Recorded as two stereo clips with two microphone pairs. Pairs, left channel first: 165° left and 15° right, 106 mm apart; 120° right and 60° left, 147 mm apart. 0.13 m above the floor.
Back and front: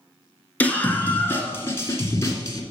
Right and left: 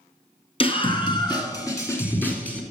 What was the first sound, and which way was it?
A scream, 130° right.